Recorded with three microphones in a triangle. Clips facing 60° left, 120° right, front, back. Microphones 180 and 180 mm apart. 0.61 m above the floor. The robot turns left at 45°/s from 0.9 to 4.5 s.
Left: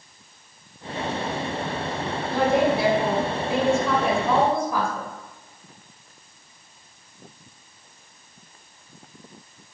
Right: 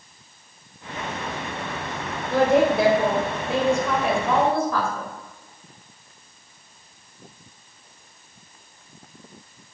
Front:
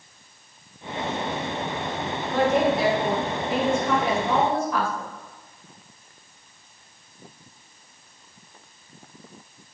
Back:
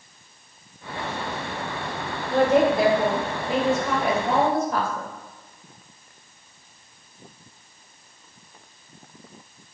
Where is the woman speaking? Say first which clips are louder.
Right 3 dB, back 3 dB; 125° right, 2 m; by 5.1 s 135° left, 2 m.